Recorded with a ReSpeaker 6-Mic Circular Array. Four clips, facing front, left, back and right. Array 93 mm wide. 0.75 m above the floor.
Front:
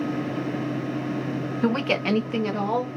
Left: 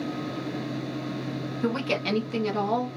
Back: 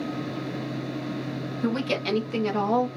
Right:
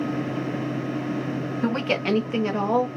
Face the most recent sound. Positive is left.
turn(degrees=-130)